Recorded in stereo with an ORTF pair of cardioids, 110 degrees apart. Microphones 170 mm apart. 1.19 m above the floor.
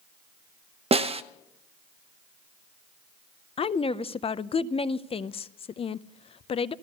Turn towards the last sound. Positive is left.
turn(degrees=35)